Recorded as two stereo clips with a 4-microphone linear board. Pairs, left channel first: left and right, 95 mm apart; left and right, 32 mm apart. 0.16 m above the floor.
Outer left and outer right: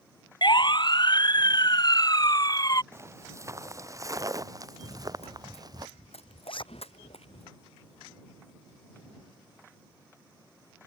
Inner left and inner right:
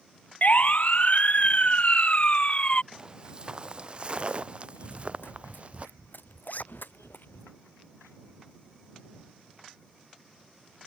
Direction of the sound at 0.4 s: 50° left (ahead or behind).